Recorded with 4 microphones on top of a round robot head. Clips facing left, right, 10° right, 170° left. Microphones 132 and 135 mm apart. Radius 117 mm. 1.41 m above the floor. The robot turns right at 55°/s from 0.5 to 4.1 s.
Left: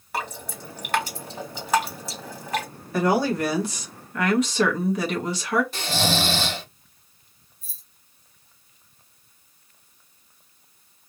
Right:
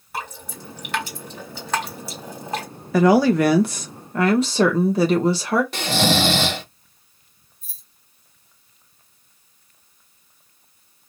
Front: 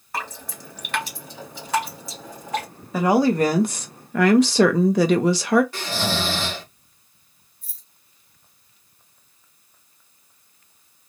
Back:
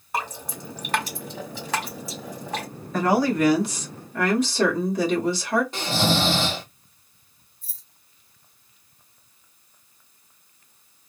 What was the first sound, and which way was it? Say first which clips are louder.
Dripping: left 1 dB, back 3 dB; 105° left.